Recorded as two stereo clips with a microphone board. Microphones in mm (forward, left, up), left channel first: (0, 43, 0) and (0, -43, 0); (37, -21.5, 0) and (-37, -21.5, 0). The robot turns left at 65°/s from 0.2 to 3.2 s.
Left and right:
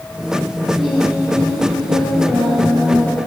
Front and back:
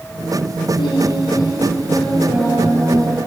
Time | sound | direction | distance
0.8 | singing | straight ahead | 6 m